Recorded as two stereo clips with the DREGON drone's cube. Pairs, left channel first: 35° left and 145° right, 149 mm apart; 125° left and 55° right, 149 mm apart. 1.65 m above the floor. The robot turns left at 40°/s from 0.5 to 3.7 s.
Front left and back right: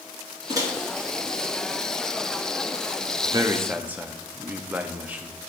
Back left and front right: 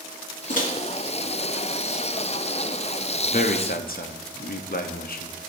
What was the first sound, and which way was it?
A microwave, 150° left.